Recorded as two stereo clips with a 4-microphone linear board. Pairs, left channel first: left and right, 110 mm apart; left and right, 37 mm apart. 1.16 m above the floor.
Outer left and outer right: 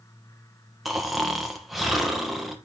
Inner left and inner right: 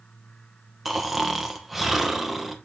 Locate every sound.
0.8 s snoring: centre (ahead or behind), 1.0 m